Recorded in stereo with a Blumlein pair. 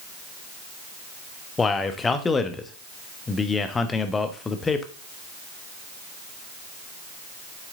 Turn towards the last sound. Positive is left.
turn(degrees=15)